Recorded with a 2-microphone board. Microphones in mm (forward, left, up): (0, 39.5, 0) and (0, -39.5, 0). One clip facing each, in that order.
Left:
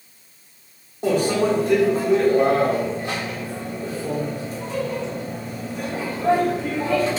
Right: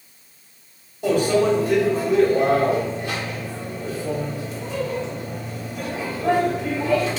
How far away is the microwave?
About 1.2 m.